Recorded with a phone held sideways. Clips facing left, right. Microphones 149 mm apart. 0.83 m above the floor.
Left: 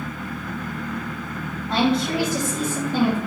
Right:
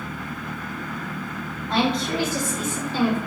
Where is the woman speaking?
Centre (ahead or behind), 2.0 m; by 3.2 s 60° left (ahead or behind), 1.0 m.